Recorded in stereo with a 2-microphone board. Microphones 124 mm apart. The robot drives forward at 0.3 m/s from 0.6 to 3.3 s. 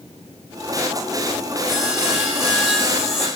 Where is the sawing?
5° right (ahead or behind), 2.0 m.